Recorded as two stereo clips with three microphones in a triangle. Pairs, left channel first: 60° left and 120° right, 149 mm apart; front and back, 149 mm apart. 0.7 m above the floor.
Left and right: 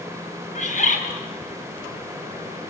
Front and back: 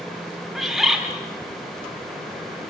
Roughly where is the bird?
Left.